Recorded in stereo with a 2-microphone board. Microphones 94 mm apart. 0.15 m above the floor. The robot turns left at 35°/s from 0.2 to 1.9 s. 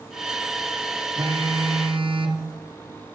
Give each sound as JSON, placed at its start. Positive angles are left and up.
{"t": 1.2, "sound": "a phone buzzing", "side_deg": -60, "distance_m": 1.5}